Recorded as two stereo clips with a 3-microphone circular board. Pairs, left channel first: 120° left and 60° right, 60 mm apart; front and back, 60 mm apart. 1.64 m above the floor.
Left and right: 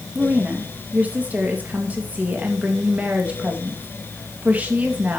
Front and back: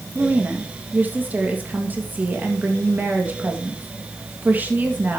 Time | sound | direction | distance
0.1 | a woman speaking | 125° right | 2.5 m